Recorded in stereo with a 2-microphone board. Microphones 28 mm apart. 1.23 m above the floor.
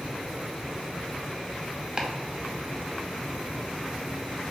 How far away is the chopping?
About 0.7 m.